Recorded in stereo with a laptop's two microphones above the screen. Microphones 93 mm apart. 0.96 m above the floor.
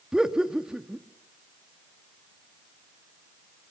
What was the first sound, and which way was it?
Laughter, 10° right (ahead or behind).